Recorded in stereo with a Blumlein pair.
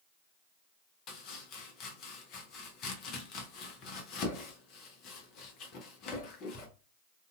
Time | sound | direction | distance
1.1 | chopping | 35° left | 0.7 m